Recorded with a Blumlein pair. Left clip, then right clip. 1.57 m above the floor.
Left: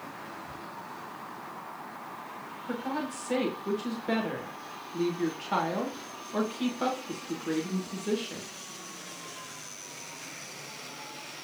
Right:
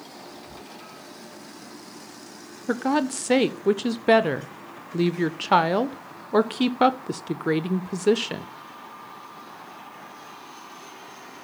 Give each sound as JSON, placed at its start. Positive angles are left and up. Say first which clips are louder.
{"t": 0.2, "sound": "whispering", "louder": "left 1 dB", "azimuth_deg": 5, "distance_m": 1.7}
{"t": 2.7, "sound": "a woman speaking", "louder": "right 10 dB", "azimuth_deg": -55, "distance_m": 0.8}